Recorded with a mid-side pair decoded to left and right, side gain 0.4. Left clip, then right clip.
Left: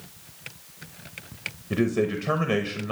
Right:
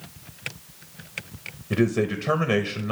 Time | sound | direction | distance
1.7 | a man speaking | 10° right | 0.8 m